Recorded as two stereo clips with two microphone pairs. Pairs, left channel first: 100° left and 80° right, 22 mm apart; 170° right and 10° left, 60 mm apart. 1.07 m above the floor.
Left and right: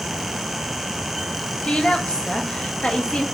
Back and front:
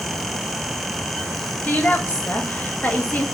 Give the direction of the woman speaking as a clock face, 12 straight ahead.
8 o'clock.